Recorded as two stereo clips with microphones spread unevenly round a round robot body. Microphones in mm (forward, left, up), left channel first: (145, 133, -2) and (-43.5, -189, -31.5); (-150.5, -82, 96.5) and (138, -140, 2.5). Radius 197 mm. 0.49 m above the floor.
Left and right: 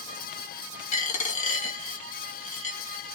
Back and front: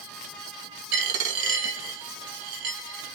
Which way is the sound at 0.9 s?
5° left.